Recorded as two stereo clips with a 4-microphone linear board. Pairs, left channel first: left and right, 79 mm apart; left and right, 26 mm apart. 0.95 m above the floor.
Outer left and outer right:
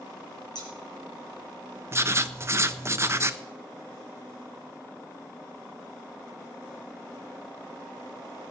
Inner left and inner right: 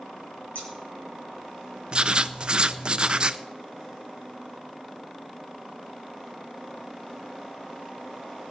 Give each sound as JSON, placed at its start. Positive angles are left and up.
{"t": 0.6, "sound": "scissors", "side_deg": 60, "distance_m": 5.5}
{"t": 1.9, "sound": "writing", "side_deg": -35, "distance_m": 0.6}